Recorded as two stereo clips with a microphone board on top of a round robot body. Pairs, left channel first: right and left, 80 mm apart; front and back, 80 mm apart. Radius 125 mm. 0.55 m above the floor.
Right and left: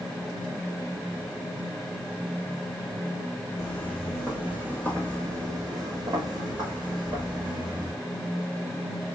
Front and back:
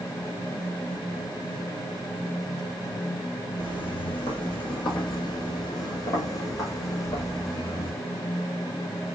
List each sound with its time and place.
3.6 s footsteps: 30° right, 0.8 m; by 7.9 s 55° left, 3 m